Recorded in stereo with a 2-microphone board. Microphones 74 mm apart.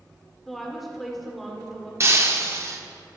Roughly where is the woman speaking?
Centre.